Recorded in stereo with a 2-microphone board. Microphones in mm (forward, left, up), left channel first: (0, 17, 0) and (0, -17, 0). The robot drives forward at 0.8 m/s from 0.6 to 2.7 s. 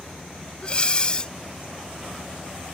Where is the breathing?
35° left (ahead or behind); by 1.3 s 30° left (ahead or behind).